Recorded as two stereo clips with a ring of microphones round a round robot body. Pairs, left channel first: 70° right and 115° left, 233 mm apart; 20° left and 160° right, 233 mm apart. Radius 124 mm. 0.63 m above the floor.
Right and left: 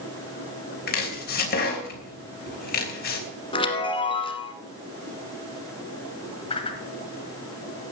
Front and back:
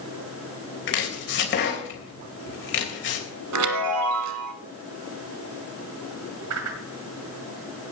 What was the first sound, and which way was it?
Chopping, 20° right.